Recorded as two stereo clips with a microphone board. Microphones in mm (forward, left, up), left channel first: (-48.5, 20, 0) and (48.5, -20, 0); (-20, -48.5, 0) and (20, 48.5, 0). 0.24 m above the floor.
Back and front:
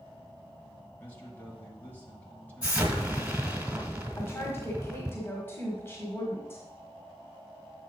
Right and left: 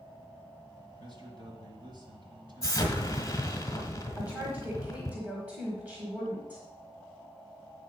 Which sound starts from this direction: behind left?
A woman speaking, at 4.2 s.